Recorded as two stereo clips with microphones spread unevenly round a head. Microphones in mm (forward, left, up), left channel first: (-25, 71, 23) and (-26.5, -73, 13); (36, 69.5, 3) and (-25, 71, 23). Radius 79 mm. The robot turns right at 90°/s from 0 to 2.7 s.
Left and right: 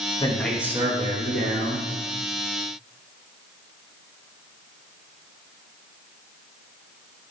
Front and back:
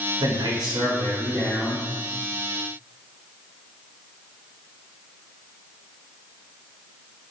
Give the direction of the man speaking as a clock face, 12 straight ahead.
7 o'clock.